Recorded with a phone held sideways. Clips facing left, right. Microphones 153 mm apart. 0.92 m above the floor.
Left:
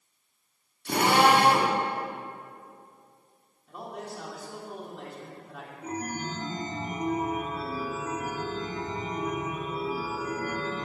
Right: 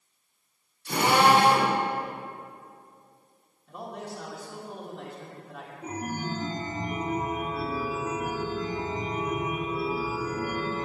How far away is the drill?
About 2.5 m.